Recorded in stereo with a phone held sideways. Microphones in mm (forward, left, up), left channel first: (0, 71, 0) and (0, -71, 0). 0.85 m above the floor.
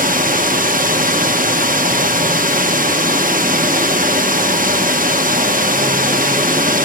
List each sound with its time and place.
0.0 s running water: 75° right (ahead or behind), 1.1 m